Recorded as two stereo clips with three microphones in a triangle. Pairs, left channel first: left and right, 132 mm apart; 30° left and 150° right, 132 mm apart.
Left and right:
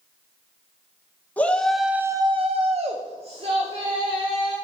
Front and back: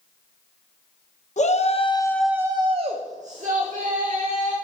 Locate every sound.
1.4 s a shout: 15° left, 1.0 m; by 4.5 s 140° right, 2.5 m